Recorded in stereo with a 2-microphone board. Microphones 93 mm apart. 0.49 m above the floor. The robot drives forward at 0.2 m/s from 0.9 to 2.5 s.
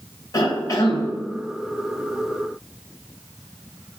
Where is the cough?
40° left (ahead or behind), 2.5 m.